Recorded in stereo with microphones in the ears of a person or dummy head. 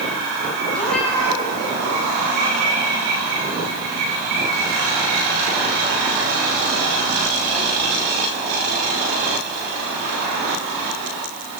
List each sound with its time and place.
0.7 s a cat meowing: 5° left (ahead or behind), 7.5 m